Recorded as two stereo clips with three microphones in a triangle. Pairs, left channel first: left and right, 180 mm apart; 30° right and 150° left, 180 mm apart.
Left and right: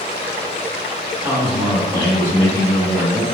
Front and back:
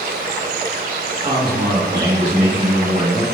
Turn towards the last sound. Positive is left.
turn(degrees=155)